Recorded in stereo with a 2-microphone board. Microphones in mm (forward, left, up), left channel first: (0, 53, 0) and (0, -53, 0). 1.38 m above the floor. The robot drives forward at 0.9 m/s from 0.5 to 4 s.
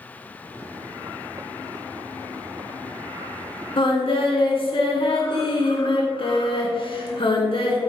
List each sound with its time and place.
3.8 s singing: 55° left (ahead or behind), 2.5 m; by 7.8 s 60° left (ahead or behind), 2.5 m